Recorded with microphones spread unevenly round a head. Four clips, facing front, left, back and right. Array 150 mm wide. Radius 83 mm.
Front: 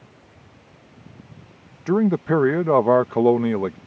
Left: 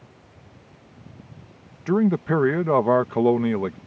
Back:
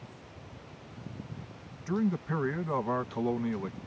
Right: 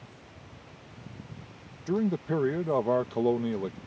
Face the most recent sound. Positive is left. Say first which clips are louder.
# left 7 dB, front 12 dB
turn(degrees=15)